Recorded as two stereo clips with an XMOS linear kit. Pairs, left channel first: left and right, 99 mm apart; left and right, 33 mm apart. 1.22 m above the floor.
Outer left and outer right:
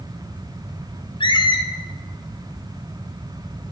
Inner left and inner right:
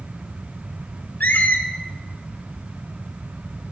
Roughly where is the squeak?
Left.